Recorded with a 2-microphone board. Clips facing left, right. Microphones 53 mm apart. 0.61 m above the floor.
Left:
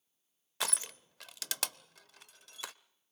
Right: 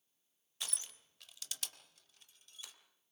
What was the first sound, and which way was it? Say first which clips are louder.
Crushing: left 10 dB; 75° left (ahead or behind).